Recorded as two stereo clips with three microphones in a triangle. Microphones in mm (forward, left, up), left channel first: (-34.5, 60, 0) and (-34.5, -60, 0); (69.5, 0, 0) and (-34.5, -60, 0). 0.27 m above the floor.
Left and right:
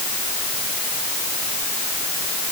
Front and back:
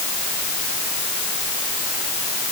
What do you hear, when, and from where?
Only background noise.